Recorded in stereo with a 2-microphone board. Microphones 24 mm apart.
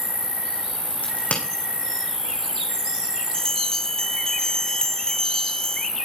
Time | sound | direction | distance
0.0 | an insect | 65° right (ahead or behind) | 3.5 m
1.0 | a crack | 75° left (ahead or behind) | 4.5 m
3.3 | a bell | 30° left (ahead or behind) | 2.5 m